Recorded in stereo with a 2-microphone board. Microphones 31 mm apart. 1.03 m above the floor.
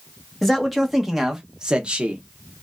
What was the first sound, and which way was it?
A man speaking, 5° left (ahead or behind).